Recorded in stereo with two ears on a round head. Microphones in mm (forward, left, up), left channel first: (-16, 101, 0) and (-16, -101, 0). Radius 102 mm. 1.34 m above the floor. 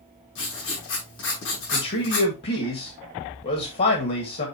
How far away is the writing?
About 5.5 m.